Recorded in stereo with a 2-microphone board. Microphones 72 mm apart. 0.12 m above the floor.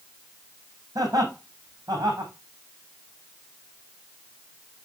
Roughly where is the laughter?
Right.